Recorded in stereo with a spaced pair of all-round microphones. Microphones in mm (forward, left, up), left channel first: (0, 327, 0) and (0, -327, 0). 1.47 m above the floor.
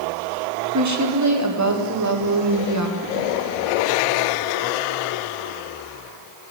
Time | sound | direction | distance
0.7 | a woman speaking | 25° right (ahead or behind) | 1.1 m